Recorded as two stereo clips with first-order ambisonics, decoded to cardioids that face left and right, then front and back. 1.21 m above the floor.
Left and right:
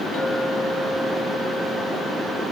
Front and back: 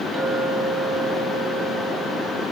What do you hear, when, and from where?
0.1 s a clink: 120° left, 3 m